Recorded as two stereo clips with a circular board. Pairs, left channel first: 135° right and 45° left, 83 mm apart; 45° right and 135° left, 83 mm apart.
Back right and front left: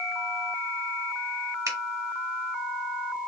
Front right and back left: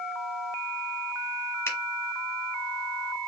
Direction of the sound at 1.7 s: 5° left.